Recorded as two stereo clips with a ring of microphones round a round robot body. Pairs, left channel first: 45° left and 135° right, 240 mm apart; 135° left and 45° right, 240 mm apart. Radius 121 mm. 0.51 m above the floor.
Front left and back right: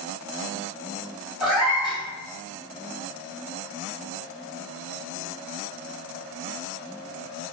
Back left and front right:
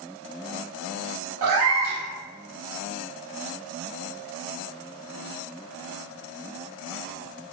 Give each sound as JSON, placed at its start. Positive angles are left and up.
{"t": 1.4, "sound": "a cat meowing", "azimuth_deg": -50, "distance_m": 1.7}